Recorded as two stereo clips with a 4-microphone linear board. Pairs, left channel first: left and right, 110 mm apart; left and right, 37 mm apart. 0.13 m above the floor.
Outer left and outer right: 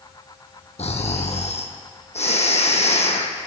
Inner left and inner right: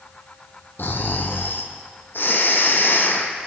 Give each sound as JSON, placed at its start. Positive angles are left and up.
{"t": 0.8, "sound": "snoring", "side_deg": 80, "distance_m": 1.5}